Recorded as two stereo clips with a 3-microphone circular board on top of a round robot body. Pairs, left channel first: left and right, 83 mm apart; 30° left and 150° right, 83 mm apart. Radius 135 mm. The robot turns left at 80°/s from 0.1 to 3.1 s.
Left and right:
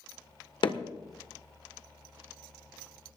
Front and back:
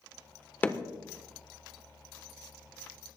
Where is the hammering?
100° left, 1.4 m; by 0.8 s 85° left, 1.4 m.